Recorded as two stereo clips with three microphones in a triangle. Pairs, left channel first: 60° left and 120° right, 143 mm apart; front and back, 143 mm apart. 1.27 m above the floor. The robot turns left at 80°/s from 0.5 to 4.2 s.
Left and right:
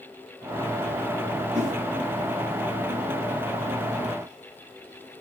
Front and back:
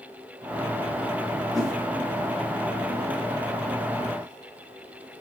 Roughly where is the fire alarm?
I don't hear a fire alarm.